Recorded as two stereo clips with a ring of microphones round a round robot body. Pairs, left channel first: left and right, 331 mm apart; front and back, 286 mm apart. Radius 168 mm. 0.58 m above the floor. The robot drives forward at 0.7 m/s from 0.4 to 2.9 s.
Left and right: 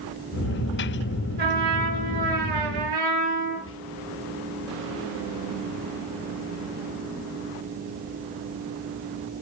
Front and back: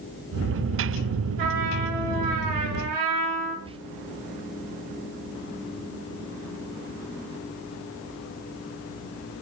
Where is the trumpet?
150° right, 6 m; by 3.5 s 155° right, 7 m.